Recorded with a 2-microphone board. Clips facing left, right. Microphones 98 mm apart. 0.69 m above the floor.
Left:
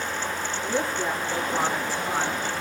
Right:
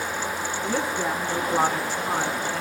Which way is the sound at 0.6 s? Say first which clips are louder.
Right 1 dB; 85° right.